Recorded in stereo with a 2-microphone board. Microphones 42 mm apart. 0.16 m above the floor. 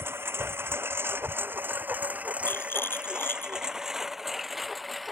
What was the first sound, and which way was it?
A lawn mower, 85° right.